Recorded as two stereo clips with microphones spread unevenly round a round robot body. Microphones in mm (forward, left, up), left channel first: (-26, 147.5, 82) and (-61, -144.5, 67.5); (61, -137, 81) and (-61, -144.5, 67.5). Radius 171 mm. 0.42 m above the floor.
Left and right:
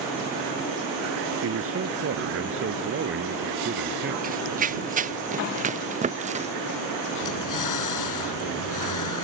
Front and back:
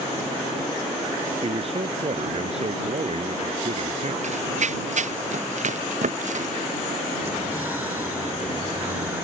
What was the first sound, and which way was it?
A man speaking, 140° right.